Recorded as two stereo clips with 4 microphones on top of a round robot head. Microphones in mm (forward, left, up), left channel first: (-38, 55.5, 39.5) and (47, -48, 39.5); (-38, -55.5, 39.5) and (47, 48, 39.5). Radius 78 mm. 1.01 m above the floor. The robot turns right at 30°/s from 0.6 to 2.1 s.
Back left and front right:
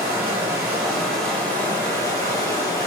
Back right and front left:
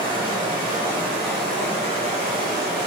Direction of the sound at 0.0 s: 25° left.